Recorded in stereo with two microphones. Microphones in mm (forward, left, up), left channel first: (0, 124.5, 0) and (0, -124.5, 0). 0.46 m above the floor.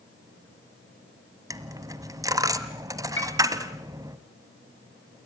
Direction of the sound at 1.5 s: 15° right (ahead or behind).